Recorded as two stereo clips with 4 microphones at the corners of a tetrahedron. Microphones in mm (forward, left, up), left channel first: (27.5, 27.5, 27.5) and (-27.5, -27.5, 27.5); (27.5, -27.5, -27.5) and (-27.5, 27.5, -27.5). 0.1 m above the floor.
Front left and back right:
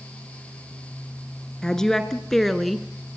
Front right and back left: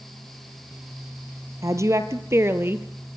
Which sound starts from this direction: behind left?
A woman speaking, at 1.6 s.